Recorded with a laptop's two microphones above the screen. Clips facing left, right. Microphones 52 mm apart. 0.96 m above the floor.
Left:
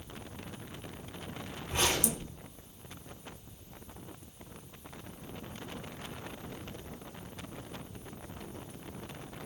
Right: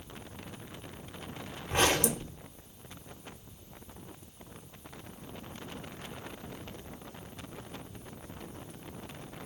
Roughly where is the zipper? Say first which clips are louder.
Right 4 dB; right.